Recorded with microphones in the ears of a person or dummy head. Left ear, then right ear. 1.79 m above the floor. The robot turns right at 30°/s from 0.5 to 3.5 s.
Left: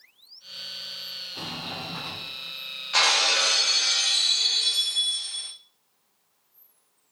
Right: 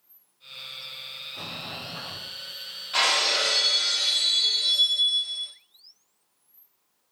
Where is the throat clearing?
No throat clearing in this recording.